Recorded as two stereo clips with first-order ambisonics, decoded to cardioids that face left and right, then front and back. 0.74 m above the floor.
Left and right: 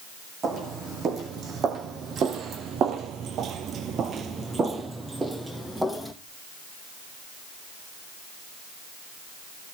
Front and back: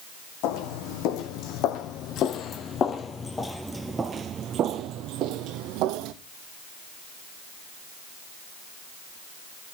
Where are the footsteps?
30° right, 2 m; by 6.1 s 175° right, 1.5 m.